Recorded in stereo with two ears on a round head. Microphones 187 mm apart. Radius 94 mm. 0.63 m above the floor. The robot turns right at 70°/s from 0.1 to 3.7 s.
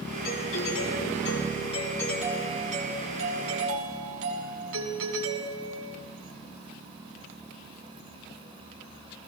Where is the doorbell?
45° left, 7 m; by 6.0 s 75° right, 7 m.